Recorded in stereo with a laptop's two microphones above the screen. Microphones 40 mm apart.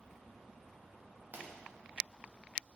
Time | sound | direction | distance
1.3 | a pop | 50° right (ahead or behind) | 0.7 m